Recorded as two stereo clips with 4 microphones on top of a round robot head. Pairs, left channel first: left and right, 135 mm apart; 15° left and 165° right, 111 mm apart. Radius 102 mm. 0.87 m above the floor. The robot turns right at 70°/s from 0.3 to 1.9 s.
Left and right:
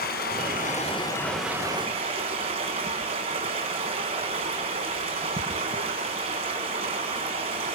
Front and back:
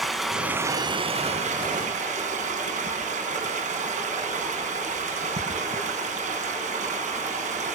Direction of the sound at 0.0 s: 105° left.